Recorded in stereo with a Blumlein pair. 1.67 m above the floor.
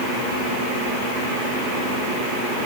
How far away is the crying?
No crying in this recording.